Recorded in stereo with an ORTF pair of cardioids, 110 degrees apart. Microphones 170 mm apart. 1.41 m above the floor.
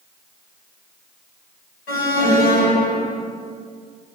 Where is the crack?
I don't hear a crack.